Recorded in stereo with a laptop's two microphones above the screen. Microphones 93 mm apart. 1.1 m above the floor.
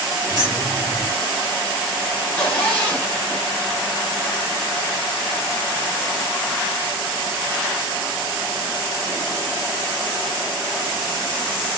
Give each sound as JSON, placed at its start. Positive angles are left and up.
{"t": 0.3, "sound": "keys jangling", "side_deg": 45, "distance_m": 2.0}
{"t": 2.2, "sound": "a zipper", "side_deg": 15, "distance_m": 2.5}